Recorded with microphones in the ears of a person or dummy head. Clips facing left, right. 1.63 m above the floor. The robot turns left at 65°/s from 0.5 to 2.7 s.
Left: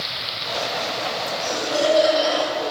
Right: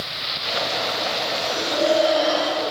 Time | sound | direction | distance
1.4 | laughter | 80° left | 8.5 m